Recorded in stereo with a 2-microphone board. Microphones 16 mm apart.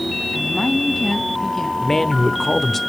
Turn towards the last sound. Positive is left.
turn(degrees=20)  # may be behind; listen again after turning